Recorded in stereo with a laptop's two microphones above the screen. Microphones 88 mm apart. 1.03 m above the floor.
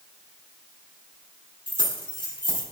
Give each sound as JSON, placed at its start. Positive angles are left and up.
{"t": 1.7, "sound": "keys jangling", "side_deg": 75, "distance_m": 1.9}